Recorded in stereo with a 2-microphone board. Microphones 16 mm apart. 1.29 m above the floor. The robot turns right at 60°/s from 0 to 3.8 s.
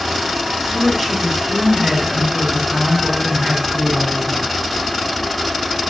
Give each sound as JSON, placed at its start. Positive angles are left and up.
{"t": 0.6, "sound": "a woman speaking", "azimuth_deg": 175, "distance_m": 4.5}